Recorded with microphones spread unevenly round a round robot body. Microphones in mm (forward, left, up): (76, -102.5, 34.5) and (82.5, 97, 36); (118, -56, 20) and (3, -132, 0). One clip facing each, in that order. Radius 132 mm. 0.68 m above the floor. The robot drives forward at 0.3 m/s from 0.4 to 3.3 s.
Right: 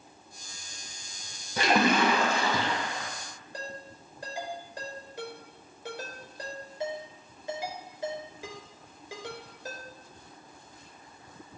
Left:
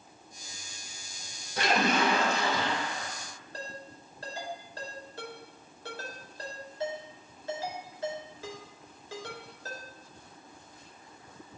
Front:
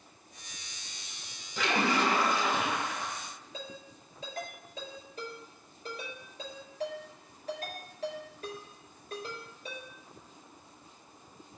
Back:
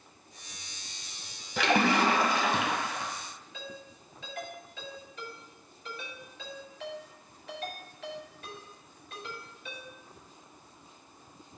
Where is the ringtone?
15° right, 5 m.